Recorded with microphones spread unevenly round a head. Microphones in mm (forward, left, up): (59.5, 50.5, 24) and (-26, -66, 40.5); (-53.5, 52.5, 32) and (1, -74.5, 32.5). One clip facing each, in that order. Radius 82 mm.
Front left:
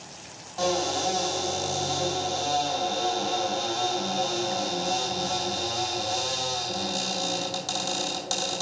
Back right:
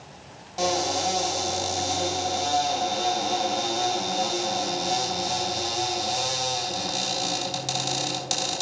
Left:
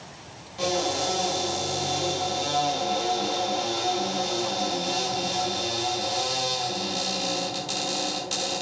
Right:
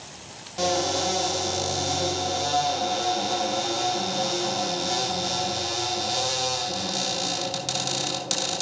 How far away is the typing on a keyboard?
I don't hear typing on a keyboard.